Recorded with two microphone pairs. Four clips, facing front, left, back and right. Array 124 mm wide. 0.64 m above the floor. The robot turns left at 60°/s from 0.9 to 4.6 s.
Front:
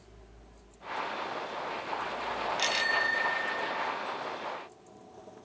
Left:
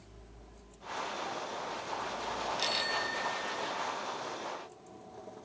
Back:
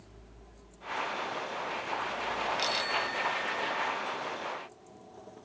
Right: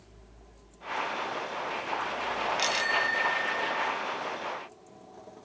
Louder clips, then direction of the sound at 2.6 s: Right 6 dB, front 1 dB; 20° right.